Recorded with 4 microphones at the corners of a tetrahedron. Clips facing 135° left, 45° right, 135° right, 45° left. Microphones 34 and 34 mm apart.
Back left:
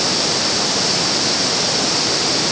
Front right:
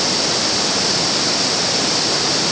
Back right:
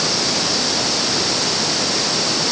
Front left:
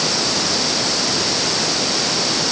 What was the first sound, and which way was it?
Only background noise.